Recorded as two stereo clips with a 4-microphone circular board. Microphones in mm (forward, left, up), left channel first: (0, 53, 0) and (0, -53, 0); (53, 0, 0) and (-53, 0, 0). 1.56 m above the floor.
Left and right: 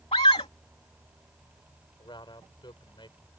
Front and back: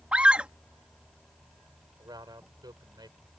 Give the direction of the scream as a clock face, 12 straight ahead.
9 o'clock.